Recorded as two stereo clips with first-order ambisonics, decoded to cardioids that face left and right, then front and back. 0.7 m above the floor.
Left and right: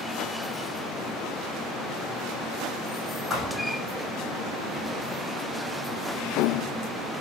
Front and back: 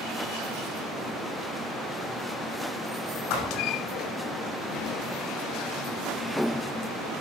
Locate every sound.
3.3 s a thud: 5° left, 7 m